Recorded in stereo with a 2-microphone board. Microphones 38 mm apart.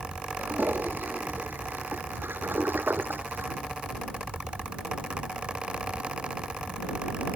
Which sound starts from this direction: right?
A toilet flushing, at 0.4 s.